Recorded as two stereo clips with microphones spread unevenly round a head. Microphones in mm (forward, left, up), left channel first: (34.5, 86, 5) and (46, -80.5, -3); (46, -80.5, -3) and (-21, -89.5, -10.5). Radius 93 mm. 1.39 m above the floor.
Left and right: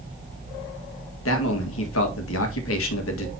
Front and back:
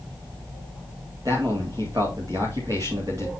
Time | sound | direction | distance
1.2 | a man speaking | 115° left | 1.8 m